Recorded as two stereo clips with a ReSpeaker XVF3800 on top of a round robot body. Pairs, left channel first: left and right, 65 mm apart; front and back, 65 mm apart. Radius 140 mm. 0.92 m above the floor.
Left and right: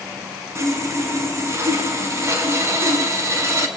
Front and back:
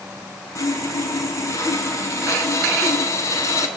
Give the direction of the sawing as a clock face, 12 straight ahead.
1 o'clock.